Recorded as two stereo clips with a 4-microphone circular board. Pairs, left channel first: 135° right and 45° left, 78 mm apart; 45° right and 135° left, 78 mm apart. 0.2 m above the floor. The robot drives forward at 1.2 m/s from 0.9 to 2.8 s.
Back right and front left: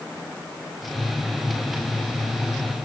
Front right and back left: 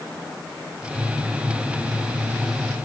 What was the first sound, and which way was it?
Only background noise.